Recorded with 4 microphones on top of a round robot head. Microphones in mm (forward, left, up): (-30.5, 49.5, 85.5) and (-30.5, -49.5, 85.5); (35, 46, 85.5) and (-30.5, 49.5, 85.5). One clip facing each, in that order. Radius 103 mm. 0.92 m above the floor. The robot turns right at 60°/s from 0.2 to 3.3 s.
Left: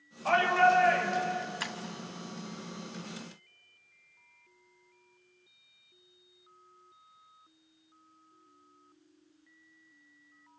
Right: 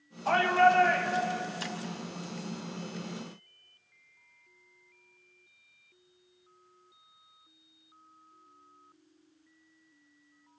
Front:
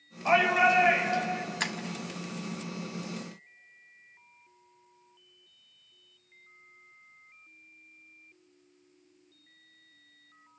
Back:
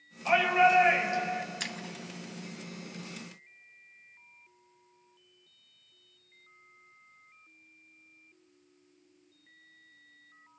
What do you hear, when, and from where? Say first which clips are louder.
0.2 s a shout: right 1 dB, even; 55° left, 6 m; by 1.4 s 130° left, 6 m
1.6 s breaking glass: right 1 dB, front 6 dB; 40° left, 1.5 m; by 1.8 s 50° left, 1.5 m